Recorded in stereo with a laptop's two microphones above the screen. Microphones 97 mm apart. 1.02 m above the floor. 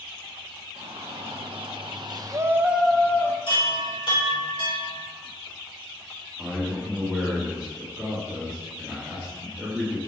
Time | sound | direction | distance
0.8 | a shout | 75° right (ahead or behind) | 1.9 m
3.5 | a chime | 60° left (ahead or behind) | 3.5 m
6.4 | a man speaking | 15° right (ahead or behind) | 2.5 m